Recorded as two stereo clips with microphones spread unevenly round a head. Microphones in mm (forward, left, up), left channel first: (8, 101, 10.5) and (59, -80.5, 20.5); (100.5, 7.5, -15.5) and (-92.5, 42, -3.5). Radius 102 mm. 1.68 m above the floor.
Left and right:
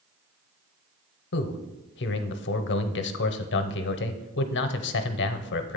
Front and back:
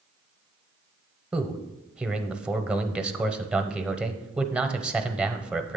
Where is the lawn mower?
No lawn mower in this recording.